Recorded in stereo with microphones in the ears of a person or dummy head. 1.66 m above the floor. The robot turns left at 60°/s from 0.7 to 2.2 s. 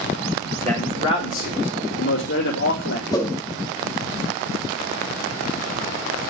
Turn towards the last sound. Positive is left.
turn(degrees=25)  # may be behind; listen again after turning